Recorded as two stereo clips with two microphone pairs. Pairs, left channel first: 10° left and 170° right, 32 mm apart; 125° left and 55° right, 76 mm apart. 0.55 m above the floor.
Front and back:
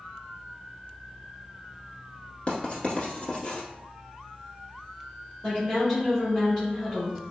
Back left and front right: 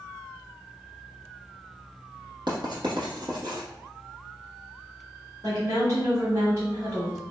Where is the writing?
55° right, 1.0 m.